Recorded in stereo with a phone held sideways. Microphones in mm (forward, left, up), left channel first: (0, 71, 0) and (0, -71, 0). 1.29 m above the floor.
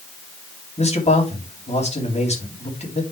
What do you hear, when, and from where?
0.8 s a man speaking: 50° left (ahead or behind), 3 m